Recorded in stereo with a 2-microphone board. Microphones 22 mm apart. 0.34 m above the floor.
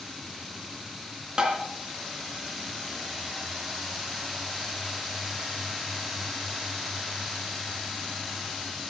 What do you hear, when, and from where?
1.4 s tapping: 25° right (ahead or behind), 3 m